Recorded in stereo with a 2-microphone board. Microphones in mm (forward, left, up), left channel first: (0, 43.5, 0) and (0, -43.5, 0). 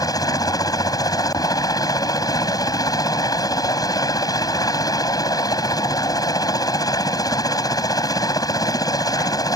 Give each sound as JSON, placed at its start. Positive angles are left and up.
{"t": 0.0, "sound": "a helicopter", "side_deg": 45}